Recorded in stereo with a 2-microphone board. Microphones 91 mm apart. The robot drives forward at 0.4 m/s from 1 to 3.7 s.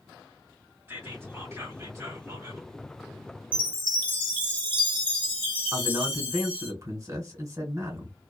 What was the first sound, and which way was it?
Whispering, 30° right (ahead or behind).